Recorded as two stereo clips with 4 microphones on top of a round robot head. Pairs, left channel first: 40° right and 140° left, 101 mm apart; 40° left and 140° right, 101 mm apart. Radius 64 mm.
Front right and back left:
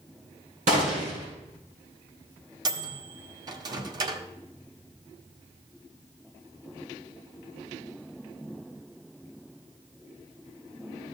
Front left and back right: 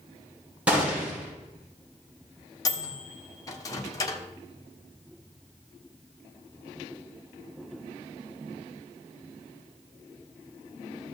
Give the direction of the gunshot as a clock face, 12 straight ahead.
7 o'clock.